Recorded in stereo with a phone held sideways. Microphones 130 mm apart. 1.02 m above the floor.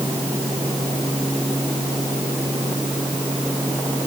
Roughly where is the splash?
I don't hear a splash.